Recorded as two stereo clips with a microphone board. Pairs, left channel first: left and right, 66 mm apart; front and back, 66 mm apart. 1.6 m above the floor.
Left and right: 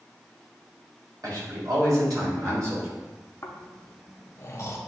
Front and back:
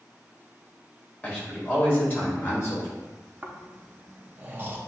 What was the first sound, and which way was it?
A man speaking, 70° right.